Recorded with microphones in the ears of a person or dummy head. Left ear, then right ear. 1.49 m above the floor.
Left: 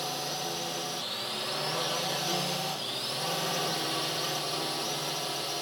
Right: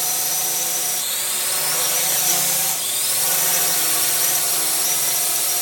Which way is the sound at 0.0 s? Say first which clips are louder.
Right 9 dB; 50° right (ahead or behind).